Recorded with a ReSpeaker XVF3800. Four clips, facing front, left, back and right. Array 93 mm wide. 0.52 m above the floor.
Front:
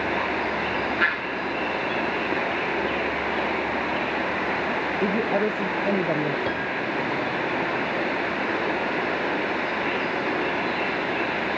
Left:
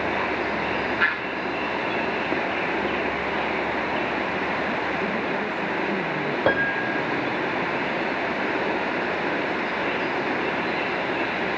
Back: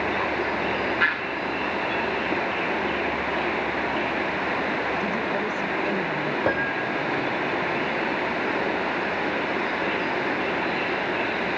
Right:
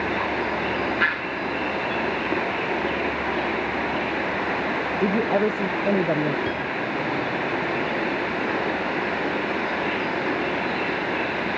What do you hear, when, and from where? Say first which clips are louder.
5.0 s a woman speaking: right 5 dB, front 3 dB; 60° right
6.5 s a piano: left 4 dB, back 2 dB; 115° left